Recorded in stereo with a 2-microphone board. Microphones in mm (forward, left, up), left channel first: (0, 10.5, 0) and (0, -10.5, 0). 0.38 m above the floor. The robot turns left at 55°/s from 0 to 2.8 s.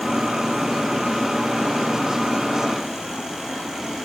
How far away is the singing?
No singing in this recording.